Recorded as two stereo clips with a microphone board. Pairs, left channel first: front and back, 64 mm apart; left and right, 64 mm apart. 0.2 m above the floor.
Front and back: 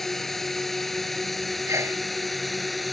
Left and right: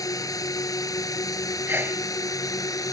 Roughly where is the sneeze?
Behind right.